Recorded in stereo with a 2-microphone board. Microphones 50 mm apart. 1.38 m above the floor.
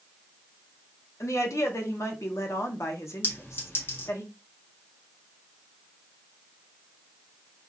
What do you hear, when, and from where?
1.2 s a woman speaking: 75° left (ahead or behind), 1.1 m
3.2 s a clink: 40° left (ahead or behind), 1.4 m